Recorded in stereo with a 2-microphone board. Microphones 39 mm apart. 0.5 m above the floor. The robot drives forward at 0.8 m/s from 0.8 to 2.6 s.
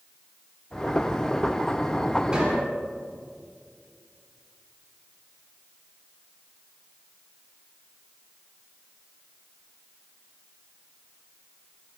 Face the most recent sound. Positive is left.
turn(degrees=-25)  # may be behind; listen again after turning